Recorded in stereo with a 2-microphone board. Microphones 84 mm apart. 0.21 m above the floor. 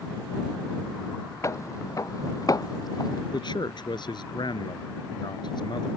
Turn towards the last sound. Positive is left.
turn(degrees=60)  # may be behind; listen again after turning